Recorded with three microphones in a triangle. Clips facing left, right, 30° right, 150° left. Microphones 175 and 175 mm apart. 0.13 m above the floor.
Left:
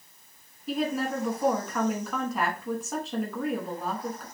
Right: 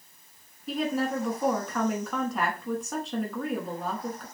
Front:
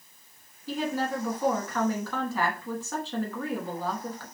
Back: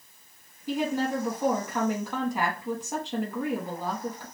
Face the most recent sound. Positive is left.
turn(degrees=175)